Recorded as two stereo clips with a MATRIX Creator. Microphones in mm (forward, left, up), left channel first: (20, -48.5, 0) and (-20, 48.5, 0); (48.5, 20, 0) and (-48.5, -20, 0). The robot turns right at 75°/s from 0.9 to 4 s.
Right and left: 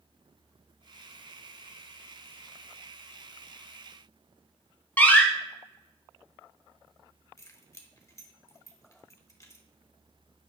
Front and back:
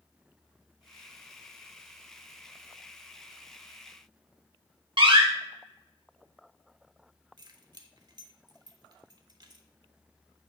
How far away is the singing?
No singing in this recording.